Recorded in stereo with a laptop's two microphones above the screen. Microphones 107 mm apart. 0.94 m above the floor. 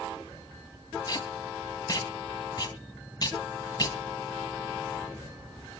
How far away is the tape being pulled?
About 3 m.